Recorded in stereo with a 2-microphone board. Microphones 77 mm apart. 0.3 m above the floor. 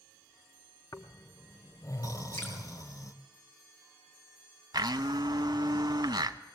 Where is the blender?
65° right (ahead or behind), 0.8 m.